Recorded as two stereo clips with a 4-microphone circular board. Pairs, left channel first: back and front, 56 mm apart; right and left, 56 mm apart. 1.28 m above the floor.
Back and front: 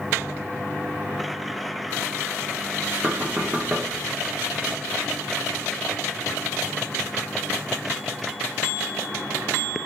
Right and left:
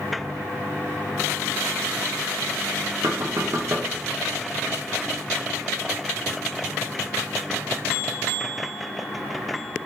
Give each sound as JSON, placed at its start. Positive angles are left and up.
{"t": 3.0, "sound": "knocking", "azimuth_deg": 65, "distance_m": 0.6}